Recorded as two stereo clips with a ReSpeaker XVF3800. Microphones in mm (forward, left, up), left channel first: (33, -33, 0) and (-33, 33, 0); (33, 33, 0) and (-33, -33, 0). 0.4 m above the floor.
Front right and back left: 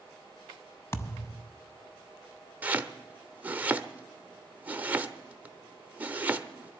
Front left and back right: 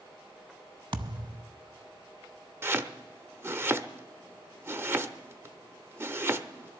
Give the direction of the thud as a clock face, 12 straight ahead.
4 o'clock.